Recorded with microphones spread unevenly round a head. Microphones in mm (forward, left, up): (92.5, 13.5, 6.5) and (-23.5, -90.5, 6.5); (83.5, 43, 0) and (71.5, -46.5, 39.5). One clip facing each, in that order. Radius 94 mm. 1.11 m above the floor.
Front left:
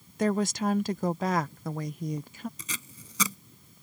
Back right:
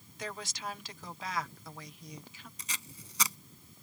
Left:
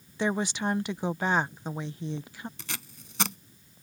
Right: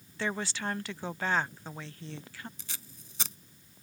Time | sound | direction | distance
0.2 | a woman speaking | 60° left | ?
2.6 | tape being pulled | 70° left | ?